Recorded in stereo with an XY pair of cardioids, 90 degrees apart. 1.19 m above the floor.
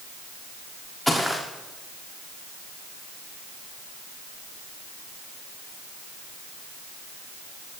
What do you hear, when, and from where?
1.1 s footsteps: 10° left, 6 m